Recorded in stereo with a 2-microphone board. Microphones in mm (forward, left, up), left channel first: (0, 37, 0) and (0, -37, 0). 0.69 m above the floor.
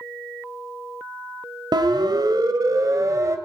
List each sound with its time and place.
1.7 s a siren: 65° right (ahead or behind), 2.5 m; by 3.4 s 40° right (ahead or behind), 2.5 m